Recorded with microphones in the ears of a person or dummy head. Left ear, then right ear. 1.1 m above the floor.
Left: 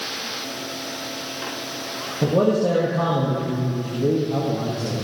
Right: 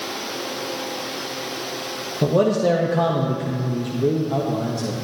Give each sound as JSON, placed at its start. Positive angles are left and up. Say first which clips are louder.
{"t": 2.2, "sound": "a man speaking", "louder": "right 1 dB", "side_deg": -65, "distance_m": 1.6}